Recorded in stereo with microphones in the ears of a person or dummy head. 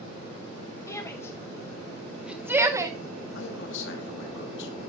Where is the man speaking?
70° left (ahead or behind), 3 m.